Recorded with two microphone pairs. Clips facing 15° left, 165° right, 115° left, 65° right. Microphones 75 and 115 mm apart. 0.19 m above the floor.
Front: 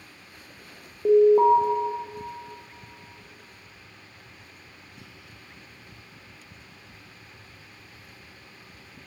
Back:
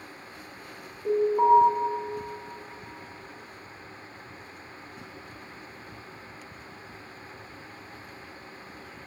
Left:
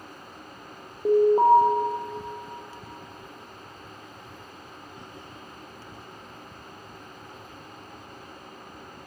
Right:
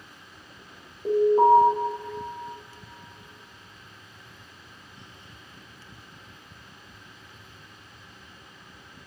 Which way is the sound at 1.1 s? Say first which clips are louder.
Front 5 dB, left 1 dB; 50° left.